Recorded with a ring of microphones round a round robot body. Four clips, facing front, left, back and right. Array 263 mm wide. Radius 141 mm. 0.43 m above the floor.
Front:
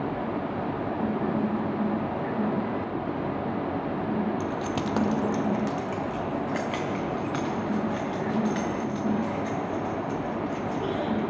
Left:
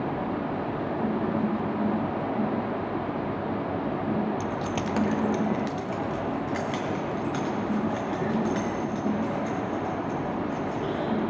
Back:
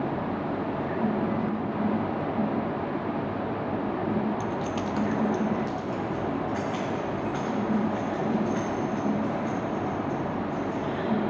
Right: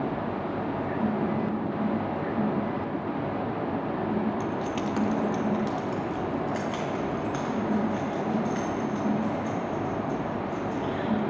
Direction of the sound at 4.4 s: 90° left.